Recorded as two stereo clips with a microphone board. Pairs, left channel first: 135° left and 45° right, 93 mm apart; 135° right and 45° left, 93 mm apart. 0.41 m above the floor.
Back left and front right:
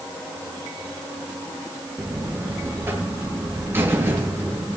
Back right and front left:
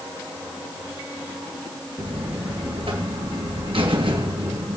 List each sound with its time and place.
2.0 s a buzzer: 20° left, 2.5 m